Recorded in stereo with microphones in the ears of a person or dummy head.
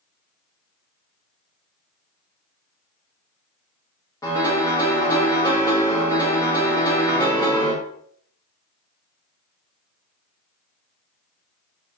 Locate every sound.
4.2 s a piano: 20° left (ahead or behind), 1.2 m